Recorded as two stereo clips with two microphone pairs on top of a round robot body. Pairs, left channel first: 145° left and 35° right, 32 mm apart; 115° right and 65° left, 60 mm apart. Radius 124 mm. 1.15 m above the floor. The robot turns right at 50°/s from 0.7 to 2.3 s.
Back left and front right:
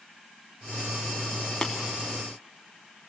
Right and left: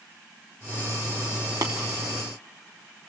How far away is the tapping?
About 0.7 m.